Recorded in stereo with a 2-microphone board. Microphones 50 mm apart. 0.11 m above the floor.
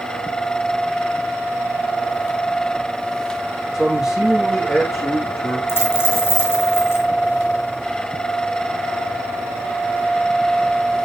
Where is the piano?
No piano in this recording.